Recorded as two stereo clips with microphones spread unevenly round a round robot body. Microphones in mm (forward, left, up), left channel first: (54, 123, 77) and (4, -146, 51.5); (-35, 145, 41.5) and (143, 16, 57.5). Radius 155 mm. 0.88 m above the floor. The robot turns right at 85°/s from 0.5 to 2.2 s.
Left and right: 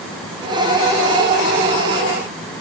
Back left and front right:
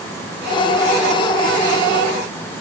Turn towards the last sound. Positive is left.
No sound to turn to.